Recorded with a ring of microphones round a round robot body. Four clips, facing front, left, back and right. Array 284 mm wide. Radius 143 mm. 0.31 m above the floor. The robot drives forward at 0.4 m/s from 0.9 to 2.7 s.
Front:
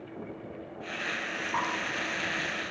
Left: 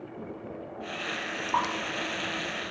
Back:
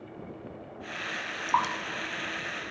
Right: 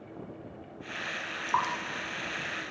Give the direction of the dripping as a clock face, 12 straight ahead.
7 o'clock.